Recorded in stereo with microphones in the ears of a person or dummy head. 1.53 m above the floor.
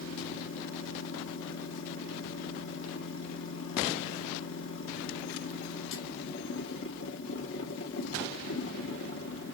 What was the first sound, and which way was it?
A machine running, 70° left (ahead or behind).